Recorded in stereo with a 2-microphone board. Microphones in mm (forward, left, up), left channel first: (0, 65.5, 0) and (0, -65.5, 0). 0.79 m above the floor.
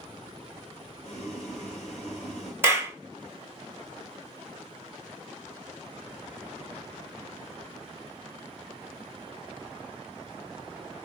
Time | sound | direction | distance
1.0 | boiling | 50° left (ahead or behind) | 2 m
2.6 | a clap | 15° right (ahead or behind) | 1.2 m